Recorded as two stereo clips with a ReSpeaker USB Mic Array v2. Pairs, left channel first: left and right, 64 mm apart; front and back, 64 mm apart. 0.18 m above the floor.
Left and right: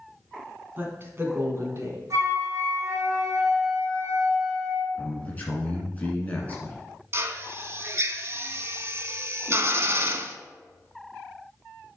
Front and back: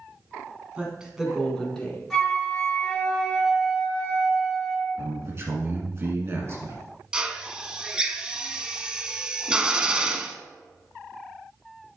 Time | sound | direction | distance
0.8 | a woman speaking | 130° right | 1.5 m
2.1 | a flute | 85° right | 2.5 m
5.0 | a man speaking | 150° left | 2.0 m
7.1 | a drill | 110° right | 0.6 m